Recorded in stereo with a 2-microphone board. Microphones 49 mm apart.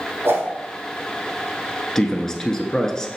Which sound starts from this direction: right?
A whoosh, at 0.2 s.